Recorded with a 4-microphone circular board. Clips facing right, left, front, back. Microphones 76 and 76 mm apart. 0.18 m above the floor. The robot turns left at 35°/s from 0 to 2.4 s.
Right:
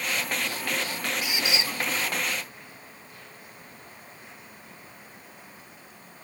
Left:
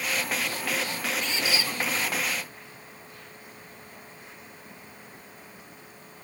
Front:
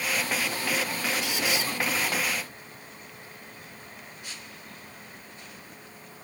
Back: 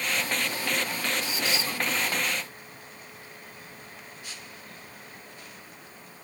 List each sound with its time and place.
1.2 s a squeak: 10° right; by 1.7 s 30° right